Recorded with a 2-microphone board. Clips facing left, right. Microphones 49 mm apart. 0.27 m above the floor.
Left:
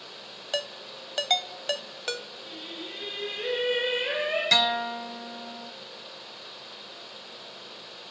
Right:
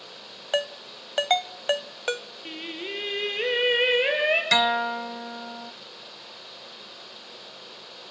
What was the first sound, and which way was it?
A ringtone, 25° right (ahead or behind).